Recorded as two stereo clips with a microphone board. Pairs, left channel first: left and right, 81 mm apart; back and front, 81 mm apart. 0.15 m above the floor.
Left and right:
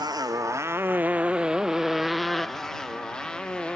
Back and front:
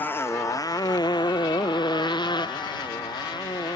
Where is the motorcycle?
115° right; by 3.8 s 165° left.